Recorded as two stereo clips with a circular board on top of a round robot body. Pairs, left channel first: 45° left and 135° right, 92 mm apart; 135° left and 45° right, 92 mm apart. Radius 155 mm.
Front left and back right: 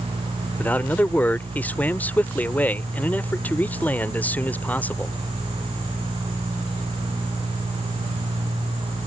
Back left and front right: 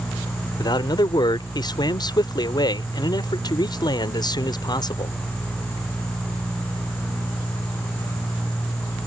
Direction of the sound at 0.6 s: 115° left.